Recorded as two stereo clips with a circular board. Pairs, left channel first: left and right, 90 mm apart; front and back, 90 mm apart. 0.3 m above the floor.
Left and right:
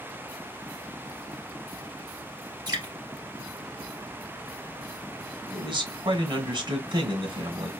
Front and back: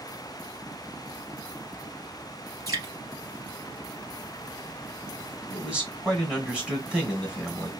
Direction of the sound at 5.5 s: 105° right.